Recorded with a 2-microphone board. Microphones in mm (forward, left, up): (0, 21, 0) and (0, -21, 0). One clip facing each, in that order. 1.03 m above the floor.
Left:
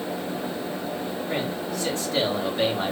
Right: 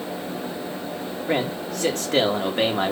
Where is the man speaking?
55° right (ahead or behind), 2.5 m.